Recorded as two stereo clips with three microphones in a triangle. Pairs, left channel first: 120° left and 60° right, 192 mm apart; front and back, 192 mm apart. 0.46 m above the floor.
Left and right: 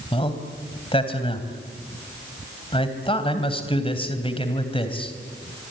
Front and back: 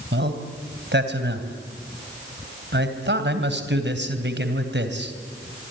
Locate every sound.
0.1 s a man speaking: straight behind, 3 m